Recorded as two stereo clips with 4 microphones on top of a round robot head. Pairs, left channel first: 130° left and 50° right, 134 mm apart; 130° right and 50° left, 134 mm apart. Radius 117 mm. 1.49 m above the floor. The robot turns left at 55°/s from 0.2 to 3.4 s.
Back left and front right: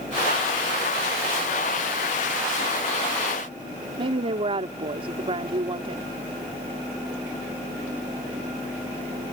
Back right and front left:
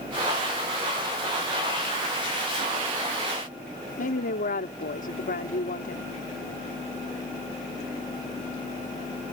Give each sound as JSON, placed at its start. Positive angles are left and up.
{"t": 4.0, "sound": "a woman speaking", "azimuth_deg": -105}